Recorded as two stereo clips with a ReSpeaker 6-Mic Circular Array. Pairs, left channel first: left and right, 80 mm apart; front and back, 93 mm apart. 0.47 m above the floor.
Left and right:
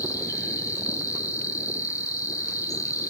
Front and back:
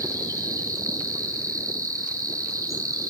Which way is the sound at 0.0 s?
130° left.